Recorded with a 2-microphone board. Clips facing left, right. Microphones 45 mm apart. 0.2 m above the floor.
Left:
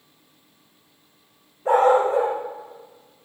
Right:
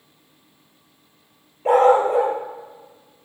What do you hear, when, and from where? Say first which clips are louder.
1.6 s a dog barking: right 2 dB; 70° right (ahead or behind), 1.6 m